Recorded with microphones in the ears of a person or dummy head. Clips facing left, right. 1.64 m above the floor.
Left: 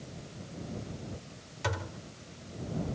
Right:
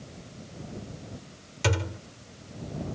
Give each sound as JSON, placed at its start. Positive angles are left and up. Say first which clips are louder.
{"t": 1.6, "sound": "a thud", "louder": "right 7 dB", "side_deg": -45}